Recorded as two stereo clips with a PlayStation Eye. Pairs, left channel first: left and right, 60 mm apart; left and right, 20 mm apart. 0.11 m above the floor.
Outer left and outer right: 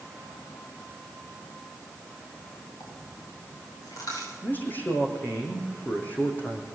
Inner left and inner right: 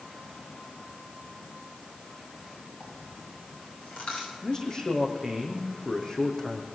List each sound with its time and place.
2.8 s a dropped coin: 75° left (ahead or behind), 8.5 m
4.4 s a man speaking: 30° left (ahead or behind), 4.5 m